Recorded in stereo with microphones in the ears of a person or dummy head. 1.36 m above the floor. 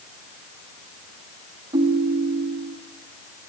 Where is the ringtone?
25° right (ahead or behind), 1.5 m.